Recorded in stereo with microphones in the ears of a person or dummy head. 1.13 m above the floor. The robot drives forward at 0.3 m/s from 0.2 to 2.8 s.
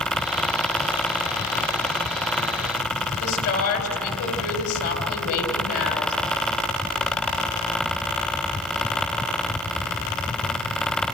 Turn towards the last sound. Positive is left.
turn(degrees=80)